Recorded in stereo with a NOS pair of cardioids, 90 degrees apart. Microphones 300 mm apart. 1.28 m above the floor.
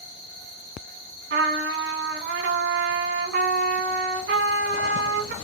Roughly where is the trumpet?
Ahead right.